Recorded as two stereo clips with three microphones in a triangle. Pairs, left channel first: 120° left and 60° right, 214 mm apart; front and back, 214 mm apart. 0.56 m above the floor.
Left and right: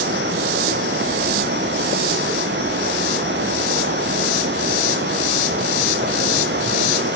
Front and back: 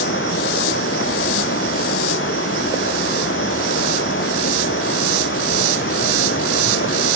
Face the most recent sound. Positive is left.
turn(degrees=-25)